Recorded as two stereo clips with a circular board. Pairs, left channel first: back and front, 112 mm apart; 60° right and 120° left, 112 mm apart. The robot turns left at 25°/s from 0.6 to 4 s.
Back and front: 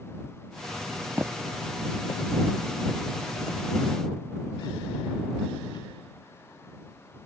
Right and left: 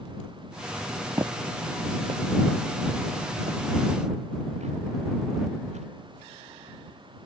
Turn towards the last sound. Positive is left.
turn(degrees=130)